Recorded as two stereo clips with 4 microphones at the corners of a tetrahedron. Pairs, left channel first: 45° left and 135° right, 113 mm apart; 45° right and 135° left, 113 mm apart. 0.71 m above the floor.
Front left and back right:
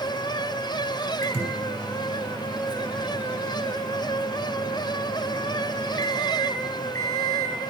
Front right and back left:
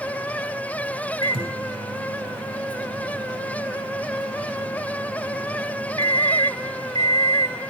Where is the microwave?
120° left, 2 m.